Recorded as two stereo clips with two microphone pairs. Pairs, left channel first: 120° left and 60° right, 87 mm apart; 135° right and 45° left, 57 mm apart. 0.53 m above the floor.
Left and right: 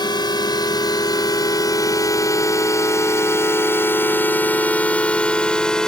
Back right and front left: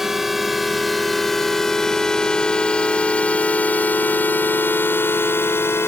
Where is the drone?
125° left; by 5.9 s 160° right.